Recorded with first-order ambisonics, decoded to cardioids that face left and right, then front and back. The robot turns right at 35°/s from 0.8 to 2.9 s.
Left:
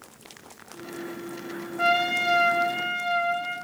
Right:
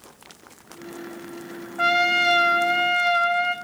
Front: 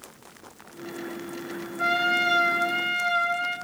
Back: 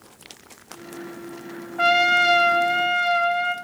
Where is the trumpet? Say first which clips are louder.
Right 4 dB, back 6 dB; 160° right, 0.9 m; by 3.5 s 120° right, 0.9 m.